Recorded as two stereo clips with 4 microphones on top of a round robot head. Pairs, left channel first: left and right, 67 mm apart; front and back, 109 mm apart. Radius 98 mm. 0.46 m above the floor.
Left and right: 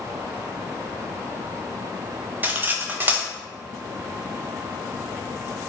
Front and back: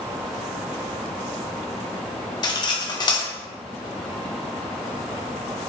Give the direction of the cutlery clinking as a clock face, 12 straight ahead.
1 o'clock.